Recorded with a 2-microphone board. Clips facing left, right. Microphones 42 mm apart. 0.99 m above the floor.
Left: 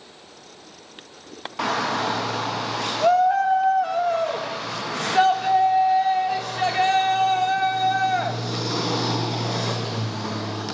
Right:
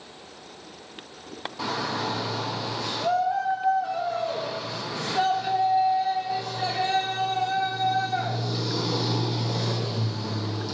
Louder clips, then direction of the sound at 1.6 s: Left 6 dB; 70° left (ahead or behind).